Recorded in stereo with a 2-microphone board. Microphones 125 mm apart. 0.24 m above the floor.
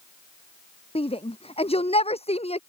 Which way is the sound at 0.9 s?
55° left (ahead or behind).